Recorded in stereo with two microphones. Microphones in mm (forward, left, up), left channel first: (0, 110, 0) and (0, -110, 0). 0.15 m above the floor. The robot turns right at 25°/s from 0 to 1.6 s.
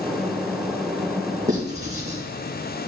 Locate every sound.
1.5 s writing: 35° right (ahead or behind), 3.5 m; by 2.2 s 30° right (ahead or behind), 3.5 m